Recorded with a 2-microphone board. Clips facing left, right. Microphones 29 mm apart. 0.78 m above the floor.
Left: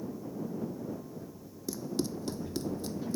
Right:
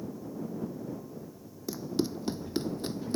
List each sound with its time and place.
1.7 s running footsteps: 15° right (ahead or behind); by 3.2 s 50° right (ahead or behind)